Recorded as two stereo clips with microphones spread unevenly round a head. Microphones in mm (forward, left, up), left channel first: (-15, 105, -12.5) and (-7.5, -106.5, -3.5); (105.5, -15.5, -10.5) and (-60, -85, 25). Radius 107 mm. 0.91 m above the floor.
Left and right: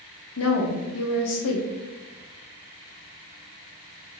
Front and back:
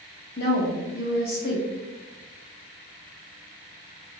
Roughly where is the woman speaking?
Ahead left.